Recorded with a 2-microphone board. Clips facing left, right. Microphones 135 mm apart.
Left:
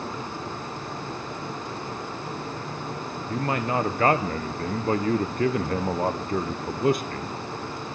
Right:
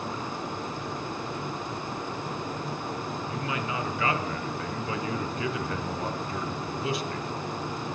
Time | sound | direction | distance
3.3 | a man speaking | 50° left (ahead or behind) | 0.9 m